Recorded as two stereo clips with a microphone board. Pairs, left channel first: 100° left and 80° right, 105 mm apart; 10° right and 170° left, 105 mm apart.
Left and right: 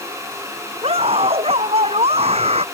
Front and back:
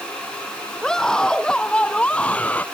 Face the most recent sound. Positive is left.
turn(degrees=-85)